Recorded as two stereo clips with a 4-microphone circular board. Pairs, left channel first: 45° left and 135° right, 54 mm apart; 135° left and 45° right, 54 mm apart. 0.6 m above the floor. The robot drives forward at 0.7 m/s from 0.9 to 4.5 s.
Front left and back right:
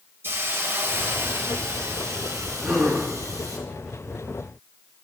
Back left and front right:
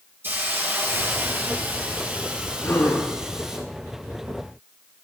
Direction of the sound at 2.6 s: 130° left.